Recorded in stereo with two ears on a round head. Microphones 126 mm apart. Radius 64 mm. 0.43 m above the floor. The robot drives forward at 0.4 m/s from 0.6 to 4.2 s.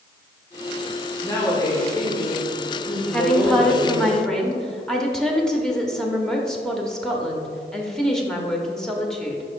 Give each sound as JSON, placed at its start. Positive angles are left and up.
{"t": 1.2, "sound": "a woman speaking", "side_deg": 25, "distance_m": 1.8}
{"t": 3.1, "sound": "a woman speaking", "side_deg": 5, "distance_m": 0.8}